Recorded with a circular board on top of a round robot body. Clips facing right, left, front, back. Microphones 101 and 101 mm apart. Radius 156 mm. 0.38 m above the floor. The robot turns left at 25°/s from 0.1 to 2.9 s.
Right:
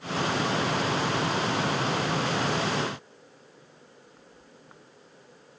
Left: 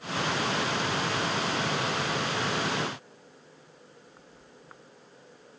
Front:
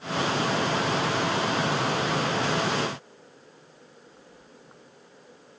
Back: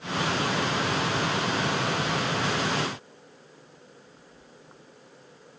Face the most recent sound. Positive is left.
No sound to turn to.